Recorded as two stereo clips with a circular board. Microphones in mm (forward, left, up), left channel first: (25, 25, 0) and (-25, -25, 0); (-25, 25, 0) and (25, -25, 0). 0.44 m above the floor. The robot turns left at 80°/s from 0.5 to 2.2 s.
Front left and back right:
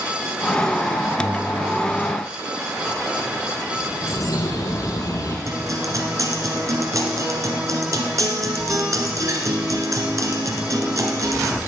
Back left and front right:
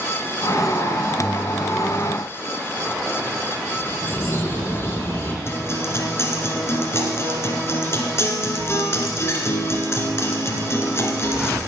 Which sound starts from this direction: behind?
A guitar, at 5.5 s.